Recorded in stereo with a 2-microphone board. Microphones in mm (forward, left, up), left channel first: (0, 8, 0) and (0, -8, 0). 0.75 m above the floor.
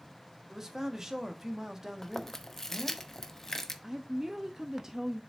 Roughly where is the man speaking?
Right.